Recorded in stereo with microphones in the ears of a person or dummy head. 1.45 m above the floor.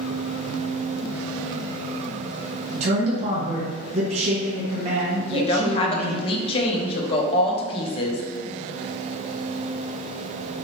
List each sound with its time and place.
2.7 s a man speaking: 45° right (ahead or behind), 1.2 m
5.2 s a woman speaking: 30° left (ahead or behind), 0.7 m